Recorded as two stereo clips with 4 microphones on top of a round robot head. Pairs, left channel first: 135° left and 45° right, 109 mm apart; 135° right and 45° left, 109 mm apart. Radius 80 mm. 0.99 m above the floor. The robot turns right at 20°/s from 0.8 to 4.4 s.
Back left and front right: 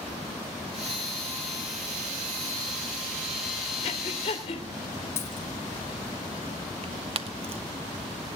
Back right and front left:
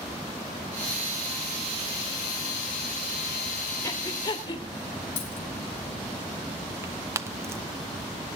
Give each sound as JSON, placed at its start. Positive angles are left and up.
{"t": 3.8, "sound": "breathing", "azimuth_deg": 170, "distance_m": 3.5}
{"t": 5.2, "sound": "a dropped coin", "azimuth_deg": -155, "distance_m": 4.5}
{"t": 6.8, "sound": "tearing paper", "azimuth_deg": -20, "distance_m": 1.0}